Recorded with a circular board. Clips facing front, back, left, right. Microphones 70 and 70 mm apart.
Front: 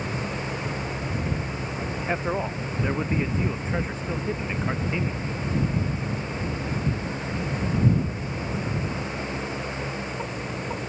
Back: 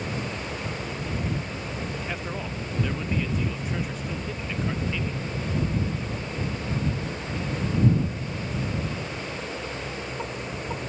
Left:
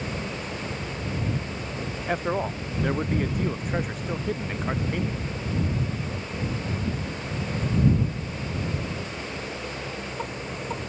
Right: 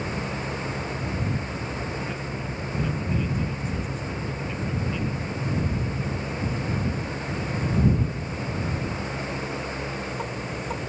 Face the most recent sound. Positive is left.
turn(degrees=60)